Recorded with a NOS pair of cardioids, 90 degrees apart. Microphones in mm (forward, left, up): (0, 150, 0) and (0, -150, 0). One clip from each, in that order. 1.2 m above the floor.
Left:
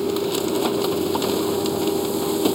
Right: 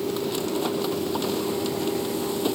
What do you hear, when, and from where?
0.0 s a machine running: 35° left